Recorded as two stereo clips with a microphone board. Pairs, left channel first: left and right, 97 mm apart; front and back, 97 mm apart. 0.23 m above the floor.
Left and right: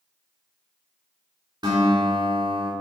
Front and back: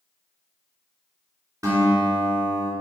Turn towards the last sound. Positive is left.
turn(degrees=-130)